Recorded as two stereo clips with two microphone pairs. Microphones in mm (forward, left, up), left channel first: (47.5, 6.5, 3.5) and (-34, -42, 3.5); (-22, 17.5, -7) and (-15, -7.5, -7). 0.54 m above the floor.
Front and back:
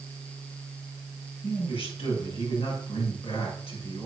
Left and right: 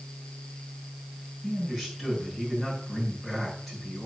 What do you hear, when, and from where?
1.4 s a man speaking: 20° left, 6.5 m